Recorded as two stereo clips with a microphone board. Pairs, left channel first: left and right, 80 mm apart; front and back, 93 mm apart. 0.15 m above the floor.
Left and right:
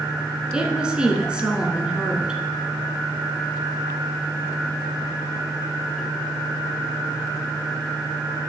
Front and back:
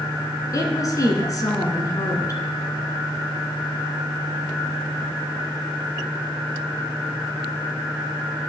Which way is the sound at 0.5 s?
15° right.